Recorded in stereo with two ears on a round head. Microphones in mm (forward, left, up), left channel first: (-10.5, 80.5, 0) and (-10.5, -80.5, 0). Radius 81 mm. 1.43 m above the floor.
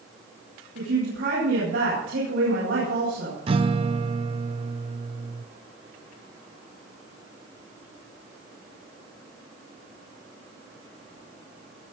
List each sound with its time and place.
0.8 s a woman speaking: 80° right, 9 m
3.5 s a guitar: 30° right (ahead or behind), 0.7 m